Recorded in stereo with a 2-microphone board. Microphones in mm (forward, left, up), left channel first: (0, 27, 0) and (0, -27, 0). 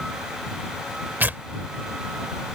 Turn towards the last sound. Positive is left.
turn(degrees=-35)  # may be behind; listen again after turning